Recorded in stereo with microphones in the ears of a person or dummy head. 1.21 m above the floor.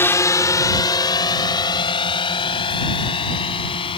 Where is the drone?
15° left (ahead or behind); by 4.0 s 30° left (ahead or behind).